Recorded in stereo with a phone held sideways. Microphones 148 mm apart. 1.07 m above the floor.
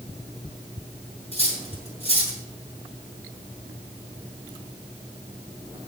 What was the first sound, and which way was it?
Cutlery clinking, 45° left (ahead or behind).